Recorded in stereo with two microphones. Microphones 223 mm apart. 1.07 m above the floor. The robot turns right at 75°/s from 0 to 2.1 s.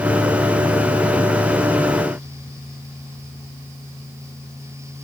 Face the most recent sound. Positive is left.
No sound to turn to.